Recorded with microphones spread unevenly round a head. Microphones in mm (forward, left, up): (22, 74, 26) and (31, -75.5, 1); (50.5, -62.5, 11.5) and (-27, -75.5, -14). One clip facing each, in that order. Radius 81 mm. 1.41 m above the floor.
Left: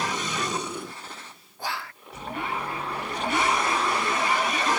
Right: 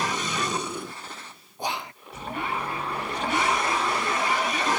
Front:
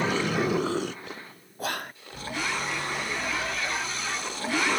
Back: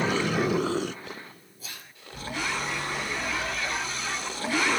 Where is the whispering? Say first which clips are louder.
Right 3 dB, front 16 dB; 25° right, 0.5 m.